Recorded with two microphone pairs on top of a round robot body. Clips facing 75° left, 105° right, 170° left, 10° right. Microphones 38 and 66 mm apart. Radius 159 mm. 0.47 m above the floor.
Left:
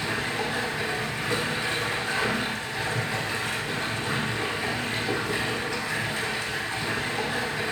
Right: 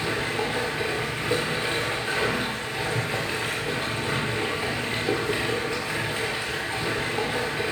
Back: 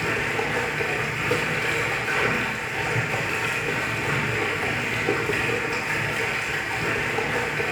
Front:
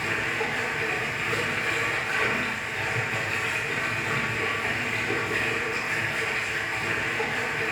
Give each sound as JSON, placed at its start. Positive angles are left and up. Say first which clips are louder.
{"t": 0.0, "sound": "running water", "louder": "right 2 dB, back 3 dB", "azimuth_deg": -170, "distance_m": 1.4}